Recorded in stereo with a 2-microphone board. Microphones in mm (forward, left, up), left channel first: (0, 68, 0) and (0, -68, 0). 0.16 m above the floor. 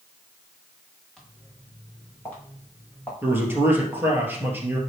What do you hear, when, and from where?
1.2 s footsteps: 5° left (ahead or behind), 4.5 m; by 3.1 s 15° left (ahead or behind), 5 m
3.2 s a man speaking: 15° right (ahead or behind), 3 m